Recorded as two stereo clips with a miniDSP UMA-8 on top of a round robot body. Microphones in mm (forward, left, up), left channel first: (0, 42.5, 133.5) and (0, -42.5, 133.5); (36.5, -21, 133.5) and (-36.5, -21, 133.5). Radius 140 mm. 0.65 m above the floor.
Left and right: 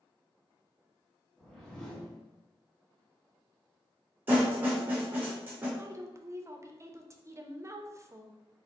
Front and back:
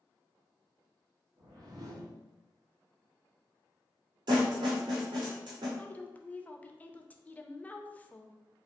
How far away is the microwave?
No microwave in this recording.